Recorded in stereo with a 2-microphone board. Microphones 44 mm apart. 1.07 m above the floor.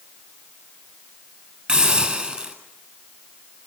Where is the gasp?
No gasp in this recording.